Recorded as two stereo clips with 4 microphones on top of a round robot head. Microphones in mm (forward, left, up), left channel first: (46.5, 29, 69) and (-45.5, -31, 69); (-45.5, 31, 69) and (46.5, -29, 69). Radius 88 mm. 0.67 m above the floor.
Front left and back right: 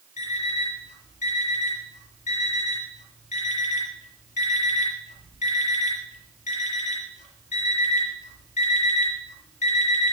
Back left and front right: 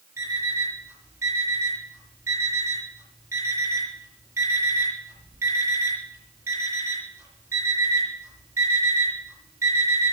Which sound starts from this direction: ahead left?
An alarm clock, at 0.2 s.